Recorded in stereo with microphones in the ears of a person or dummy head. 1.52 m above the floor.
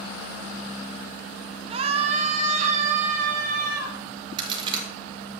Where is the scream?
35° right (ahead or behind), 0.7 m; by 4.0 s 50° right (ahead or behind), 2.5 m.